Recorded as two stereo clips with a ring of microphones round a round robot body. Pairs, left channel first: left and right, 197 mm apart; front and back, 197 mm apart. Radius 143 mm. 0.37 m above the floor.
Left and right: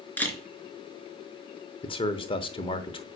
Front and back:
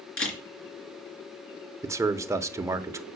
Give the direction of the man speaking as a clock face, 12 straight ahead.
8 o'clock.